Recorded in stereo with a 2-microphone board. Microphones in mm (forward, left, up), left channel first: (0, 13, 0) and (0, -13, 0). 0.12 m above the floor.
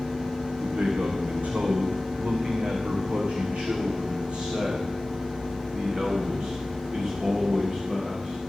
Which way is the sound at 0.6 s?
80° right.